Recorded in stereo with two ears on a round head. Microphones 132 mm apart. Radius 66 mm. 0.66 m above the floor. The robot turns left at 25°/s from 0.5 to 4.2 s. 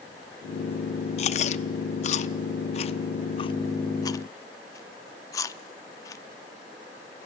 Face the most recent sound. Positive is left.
turn(degrees=25)  # may be behind; listen again after turning